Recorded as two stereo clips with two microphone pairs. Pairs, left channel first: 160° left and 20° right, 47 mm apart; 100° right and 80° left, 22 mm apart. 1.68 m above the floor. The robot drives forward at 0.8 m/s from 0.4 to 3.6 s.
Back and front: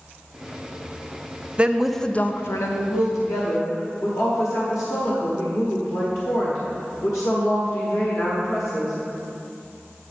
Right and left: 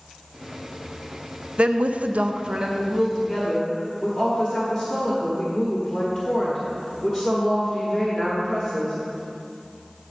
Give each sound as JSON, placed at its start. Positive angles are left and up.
{"t": 1.6, "sound": "a woman speaking", "azimuth_deg": 50, "distance_m": 0.6}